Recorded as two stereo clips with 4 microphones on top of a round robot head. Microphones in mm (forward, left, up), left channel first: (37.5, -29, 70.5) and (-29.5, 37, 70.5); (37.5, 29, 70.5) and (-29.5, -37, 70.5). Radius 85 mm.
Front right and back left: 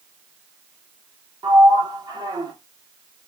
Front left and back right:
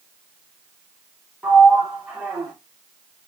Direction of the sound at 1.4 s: 150° left.